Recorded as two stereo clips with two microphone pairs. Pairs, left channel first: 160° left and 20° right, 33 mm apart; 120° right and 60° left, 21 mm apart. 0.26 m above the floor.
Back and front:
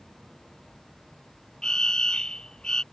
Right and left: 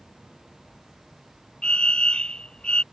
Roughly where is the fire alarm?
Behind right.